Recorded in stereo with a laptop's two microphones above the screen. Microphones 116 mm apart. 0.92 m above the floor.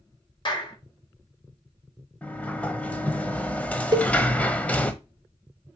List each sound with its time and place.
0.5 s a clap: 45° left (ahead or behind), 4 m
2.2 s a sliding door: 10° left (ahead or behind), 1.1 m
3.9 s a cowbell: 40° right (ahead or behind), 0.9 m